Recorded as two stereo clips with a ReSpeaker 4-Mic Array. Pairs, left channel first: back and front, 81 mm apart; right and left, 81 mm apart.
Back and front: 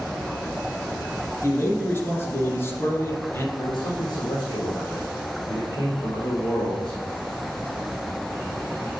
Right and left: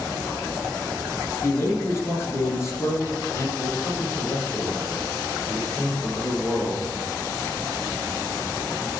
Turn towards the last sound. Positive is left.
turn(degrees=-165)